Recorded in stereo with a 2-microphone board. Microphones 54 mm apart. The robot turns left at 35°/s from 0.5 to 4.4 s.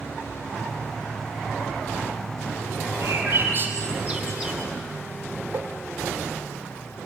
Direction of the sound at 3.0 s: 60° right (ahead or behind).